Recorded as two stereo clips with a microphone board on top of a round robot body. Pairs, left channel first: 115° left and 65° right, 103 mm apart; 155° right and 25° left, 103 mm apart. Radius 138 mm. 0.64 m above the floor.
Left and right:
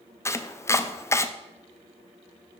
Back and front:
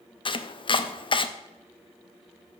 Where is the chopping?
175° left, 0.8 m.